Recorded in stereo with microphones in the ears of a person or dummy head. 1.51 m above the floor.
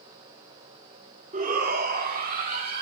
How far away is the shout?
About 1.5 m.